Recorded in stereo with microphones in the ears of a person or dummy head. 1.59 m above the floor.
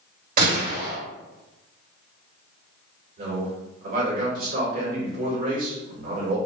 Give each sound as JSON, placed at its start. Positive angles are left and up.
{"t": 0.4, "sound": "a gunshot", "side_deg": -50, "distance_m": 1.9}
{"t": 3.2, "sound": "a man speaking", "side_deg": -45, "distance_m": 1.5}